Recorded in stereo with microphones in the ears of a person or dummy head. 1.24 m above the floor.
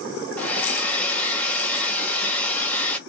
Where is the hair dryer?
10° left (ahead or behind), 0.5 m.